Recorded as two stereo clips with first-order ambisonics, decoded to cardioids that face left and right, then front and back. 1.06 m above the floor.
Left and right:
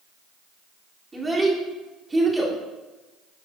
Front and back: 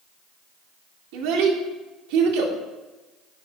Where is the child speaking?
170° right, 2.5 m.